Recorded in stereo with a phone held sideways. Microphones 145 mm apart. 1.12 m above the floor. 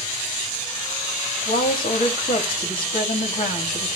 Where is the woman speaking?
75° left (ahead or behind), 2.5 m.